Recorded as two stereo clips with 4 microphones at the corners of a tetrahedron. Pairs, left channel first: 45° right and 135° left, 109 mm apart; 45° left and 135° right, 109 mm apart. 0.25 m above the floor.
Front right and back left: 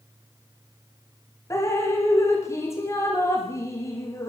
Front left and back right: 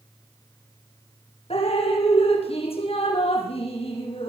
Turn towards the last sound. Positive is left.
turn(degrees=20)